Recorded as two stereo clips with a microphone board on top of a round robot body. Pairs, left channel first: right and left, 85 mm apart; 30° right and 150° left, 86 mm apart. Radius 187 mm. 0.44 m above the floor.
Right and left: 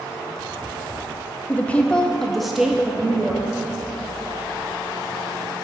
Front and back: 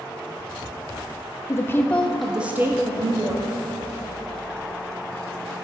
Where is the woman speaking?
35° right, 0.9 m; by 3.6 s 160° left, 1.2 m.